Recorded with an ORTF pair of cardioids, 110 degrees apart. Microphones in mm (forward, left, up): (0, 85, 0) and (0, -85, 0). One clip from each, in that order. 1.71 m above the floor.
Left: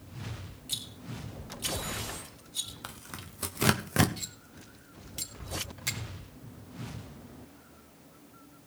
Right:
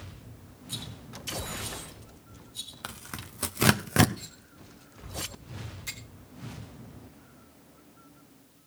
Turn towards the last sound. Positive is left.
turn(degrees=50)